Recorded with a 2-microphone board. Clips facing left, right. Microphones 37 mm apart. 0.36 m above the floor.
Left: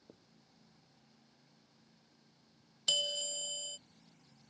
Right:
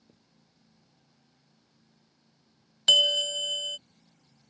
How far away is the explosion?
I don't hear an explosion.